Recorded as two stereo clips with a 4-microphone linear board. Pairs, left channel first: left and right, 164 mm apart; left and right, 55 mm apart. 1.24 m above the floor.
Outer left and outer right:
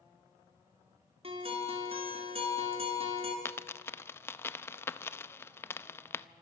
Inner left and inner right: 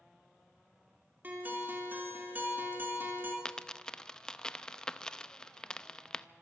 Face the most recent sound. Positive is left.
turn(degrees=15)  # may be behind; listen again after turning